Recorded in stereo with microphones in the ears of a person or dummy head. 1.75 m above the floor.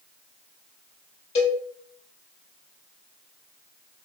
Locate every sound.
1.4 s a cowbell: 35° left (ahead or behind), 1.4 m